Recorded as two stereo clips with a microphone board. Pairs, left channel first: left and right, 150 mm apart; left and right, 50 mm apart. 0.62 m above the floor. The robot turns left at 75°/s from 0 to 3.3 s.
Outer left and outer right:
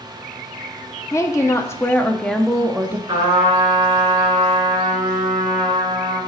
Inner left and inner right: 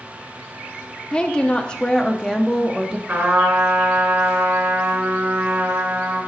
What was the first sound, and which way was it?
A woman speaking, 20° left (ahead or behind).